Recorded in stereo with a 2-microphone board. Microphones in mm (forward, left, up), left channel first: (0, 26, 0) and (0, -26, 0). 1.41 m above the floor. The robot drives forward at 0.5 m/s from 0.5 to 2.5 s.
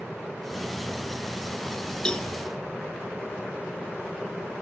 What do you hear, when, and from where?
2.0 s a cowbell: 15° left (ahead or behind), 1.0 m